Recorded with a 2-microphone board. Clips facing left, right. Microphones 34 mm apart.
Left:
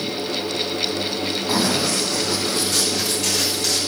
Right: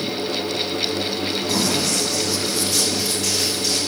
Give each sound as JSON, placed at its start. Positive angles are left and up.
{"t": 1.5, "sound": "running footsteps", "side_deg": 35, "distance_m": 3.0}